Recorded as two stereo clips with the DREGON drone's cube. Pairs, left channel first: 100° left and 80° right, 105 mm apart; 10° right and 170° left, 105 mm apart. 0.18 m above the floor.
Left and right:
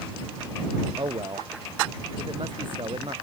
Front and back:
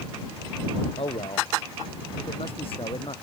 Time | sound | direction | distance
1.0 | a man speaking | 35° right | ?